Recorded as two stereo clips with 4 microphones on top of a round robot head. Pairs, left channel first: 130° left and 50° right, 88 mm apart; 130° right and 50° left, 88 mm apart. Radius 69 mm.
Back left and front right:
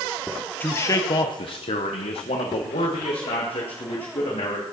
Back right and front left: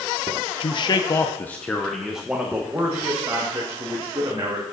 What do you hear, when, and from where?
0.6 s a man speaking: 160° right, 0.9 m; by 4.6 s 105° left, 3 m